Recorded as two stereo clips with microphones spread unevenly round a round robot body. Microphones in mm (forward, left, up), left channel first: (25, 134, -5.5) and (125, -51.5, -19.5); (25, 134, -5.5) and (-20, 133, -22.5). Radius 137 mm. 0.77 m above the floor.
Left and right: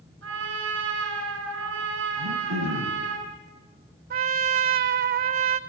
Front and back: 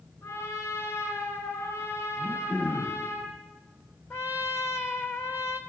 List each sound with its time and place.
0.2 s a trumpet: 40° right, 8 m
2.2 s throat clearing: 50° right, 6.5 m
4.1 s a trumpet: 65° right, 1.4 m